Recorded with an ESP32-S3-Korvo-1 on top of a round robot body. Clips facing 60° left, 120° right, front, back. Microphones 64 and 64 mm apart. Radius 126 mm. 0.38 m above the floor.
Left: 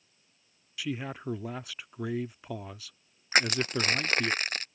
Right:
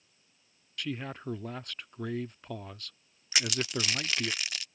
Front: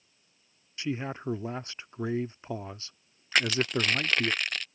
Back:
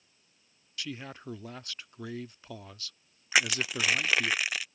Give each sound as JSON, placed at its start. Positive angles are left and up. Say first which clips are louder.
{"t": 0.8, "sound": "a man speaking", "louder": "left 2 dB, front 7 dB", "azimuth_deg": -20}
{"t": 3.3, "sound": "crushing", "louder": "left 5 dB, front 1 dB", "azimuth_deg": 100}